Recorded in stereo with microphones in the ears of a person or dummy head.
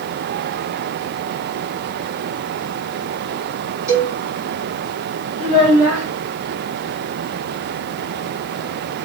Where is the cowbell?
15° right (ahead or behind), 1.5 m.